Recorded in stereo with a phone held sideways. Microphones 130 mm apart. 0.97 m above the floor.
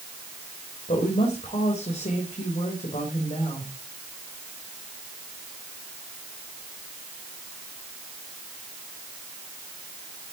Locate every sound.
0.9 s a woman speaking: 70° left (ahead or behind), 3.5 m